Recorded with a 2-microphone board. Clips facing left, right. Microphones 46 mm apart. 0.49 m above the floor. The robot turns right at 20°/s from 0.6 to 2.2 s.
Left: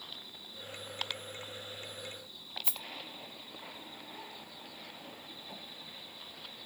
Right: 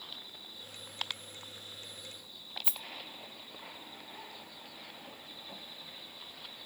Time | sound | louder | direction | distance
2.6 | a rattle | even | 20° right (ahead or behind) | 1.3 m